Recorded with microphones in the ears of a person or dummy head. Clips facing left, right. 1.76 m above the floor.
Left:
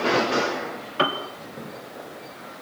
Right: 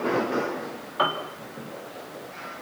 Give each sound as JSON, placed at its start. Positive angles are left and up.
{"t": 1.0, "sound": "a piano", "side_deg": 40, "distance_m": 3.5}